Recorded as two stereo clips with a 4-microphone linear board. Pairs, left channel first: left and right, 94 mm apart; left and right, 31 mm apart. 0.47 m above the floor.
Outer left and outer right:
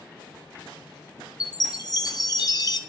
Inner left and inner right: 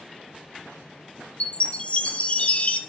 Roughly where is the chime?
Left.